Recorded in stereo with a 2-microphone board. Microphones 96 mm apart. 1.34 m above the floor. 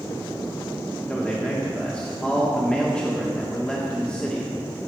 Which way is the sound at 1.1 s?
10° left (ahead or behind).